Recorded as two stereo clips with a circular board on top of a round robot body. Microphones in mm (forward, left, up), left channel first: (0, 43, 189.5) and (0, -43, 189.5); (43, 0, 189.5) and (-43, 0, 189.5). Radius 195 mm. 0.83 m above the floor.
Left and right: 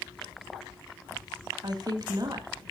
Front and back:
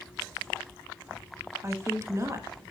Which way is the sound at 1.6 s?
125° right.